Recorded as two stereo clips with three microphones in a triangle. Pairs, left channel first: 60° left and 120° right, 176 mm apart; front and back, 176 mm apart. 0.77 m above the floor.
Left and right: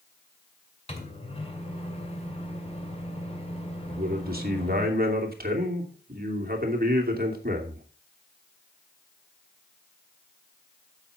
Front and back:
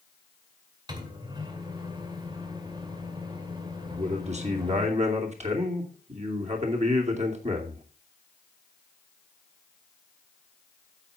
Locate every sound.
0.9 s a microwave: 115° left, 2 m
3.9 s a man speaking: 135° right, 2.5 m